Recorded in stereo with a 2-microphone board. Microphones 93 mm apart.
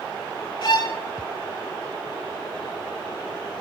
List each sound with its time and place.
0.6 s a violin: 60° left (ahead or behind), 1.6 m